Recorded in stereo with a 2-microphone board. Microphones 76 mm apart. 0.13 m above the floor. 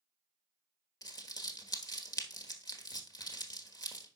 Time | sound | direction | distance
1.0 | crumpling | 50° left (ahead or behind) | 1.3 m